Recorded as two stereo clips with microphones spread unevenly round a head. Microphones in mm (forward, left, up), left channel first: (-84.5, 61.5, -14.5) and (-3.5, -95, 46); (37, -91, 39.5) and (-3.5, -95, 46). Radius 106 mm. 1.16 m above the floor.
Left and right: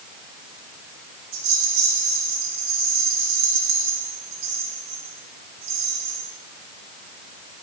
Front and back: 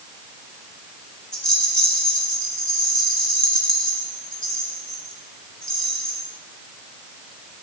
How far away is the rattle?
About 7.5 m.